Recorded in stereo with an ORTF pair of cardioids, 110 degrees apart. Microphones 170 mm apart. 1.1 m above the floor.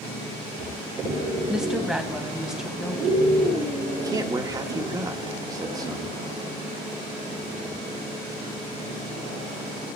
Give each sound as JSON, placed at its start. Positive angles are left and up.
{"t": 1.5, "sound": "a woman speaking", "azimuth_deg": -5, "distance_m": 1.5}
{"t": 3.9, "sound": "a man speaking", "azimuth_deg": -20, "distance_m": 1.2}